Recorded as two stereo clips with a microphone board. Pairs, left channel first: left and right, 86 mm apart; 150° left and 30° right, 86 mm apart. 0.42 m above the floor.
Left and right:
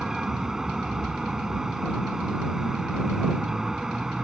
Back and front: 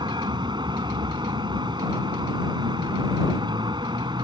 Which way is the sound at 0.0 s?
5° right.